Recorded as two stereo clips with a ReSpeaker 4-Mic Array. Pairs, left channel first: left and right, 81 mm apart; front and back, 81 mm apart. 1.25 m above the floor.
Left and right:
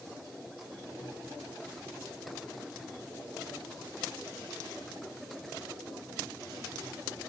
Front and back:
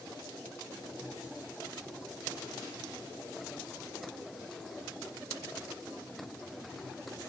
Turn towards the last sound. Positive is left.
No sound to turn to.